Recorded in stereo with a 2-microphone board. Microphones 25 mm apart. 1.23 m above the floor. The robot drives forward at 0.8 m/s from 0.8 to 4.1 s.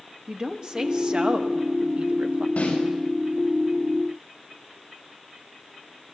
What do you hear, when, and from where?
0.3 s a woman speaking: 35° right (ahead or behind), 2 m; by 2.5 s 70° right (ahead or behind), 1.3 m
2.6 s a snare drum: 65° left (ahead or behind), 7 m